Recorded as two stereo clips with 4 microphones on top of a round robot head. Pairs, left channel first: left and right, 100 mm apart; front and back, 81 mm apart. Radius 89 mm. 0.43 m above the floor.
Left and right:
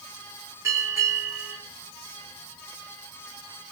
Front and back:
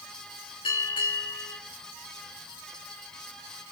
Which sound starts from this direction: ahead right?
A bell, at 0.6 s.